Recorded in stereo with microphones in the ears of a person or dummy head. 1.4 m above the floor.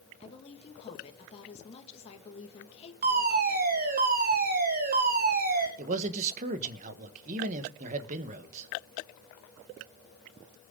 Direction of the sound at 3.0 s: 40° right (ahead or behind).